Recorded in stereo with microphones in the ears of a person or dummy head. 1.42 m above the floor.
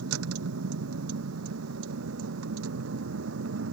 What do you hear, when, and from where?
0.0 s a vehicle: 80° right; by 3.8 s 70° right (ahead or behind)